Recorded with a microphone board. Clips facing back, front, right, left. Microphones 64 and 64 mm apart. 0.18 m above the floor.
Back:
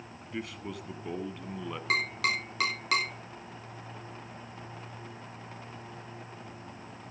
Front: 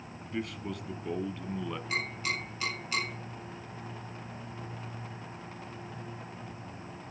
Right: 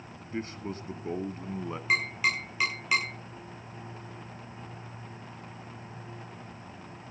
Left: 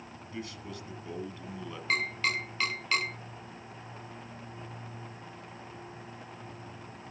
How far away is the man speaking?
About 1.1 m.